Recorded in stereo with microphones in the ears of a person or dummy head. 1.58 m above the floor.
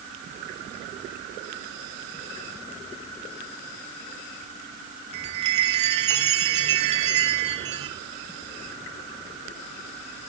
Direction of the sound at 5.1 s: 40° right (ahead or behind).